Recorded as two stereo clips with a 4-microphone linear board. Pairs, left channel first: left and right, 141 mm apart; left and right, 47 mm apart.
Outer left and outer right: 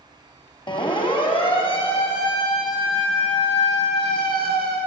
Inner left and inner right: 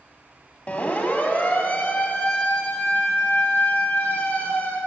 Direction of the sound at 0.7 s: 35° left (ahead or behind).